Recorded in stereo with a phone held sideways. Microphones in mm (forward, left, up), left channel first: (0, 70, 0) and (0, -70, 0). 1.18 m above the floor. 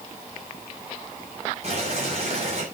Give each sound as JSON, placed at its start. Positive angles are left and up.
{"t": 1.6, "sound": "boiling", "side_deg": -50, "distance_m": 7.0}